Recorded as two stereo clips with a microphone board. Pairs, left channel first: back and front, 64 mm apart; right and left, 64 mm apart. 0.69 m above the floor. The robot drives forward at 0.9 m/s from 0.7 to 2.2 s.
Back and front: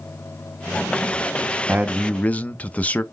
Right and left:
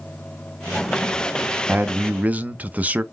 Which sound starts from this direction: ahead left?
A man speaking, at 1.7 s.